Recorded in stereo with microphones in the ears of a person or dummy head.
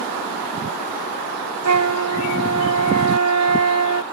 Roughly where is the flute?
Right.